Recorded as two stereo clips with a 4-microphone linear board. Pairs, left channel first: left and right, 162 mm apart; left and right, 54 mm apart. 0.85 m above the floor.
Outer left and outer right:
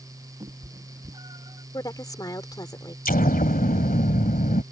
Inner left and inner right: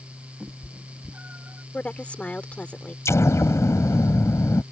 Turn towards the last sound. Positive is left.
turn(degrees=65)  # may be behind; listen again after turning